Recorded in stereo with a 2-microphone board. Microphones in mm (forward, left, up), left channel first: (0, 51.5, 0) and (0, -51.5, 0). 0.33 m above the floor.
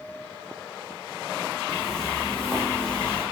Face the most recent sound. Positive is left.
turn(degrees=5)  # may be behind; listen again after turning